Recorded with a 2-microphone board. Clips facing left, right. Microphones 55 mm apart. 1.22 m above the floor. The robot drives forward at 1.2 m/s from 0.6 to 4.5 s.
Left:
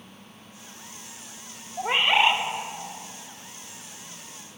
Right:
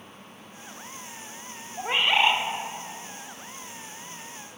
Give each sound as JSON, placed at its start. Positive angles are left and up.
{"t": 1.8, "sound": "a bird", "side_deg": 15, "distance_m": 0.6}